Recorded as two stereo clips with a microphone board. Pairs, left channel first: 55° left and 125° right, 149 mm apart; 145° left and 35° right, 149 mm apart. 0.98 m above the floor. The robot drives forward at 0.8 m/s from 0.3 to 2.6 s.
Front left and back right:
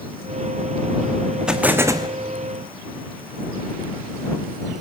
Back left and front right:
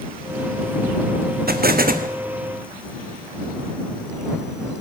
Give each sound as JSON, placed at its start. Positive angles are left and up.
{"t": 1.5, "sound": "an explosion", "azimuth_deg": -40, "distance_m": 1.1}